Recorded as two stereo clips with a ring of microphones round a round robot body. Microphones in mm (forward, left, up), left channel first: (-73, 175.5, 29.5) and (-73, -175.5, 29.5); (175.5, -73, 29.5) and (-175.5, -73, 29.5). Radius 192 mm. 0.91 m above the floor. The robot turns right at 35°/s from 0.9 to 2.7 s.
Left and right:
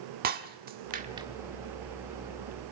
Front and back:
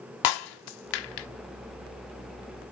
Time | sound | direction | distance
0.2 | breaking glass | 20° right | 1.4 m